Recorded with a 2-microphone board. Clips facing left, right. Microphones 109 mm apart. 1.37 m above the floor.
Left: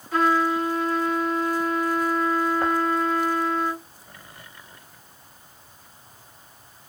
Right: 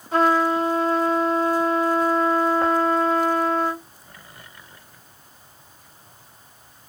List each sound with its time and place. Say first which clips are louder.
0.1 s a trumpet: right 2 dB; 30° right (ahead or behind), 1.1 m